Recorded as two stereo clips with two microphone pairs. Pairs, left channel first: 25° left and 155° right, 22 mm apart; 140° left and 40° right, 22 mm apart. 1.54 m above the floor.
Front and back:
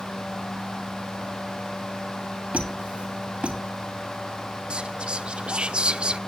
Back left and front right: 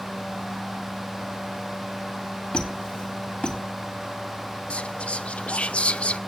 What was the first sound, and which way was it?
A squeak, 175° right.